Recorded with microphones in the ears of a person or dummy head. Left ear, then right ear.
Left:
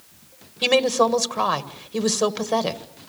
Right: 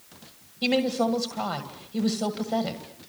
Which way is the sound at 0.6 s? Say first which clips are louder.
Left 7 dB; 55° left (ahead or behind).